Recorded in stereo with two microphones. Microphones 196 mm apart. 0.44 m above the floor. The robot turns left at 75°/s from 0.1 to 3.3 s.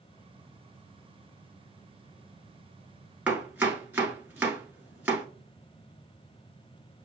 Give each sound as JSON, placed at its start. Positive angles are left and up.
{"t": 3.3, "sound": "chopping", "side_deg": -5, "distance_m": 1.2}